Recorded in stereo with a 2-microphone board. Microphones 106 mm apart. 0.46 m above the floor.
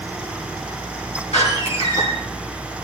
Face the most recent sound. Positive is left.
turn(degrees=75)  # may be behind; listen again after turning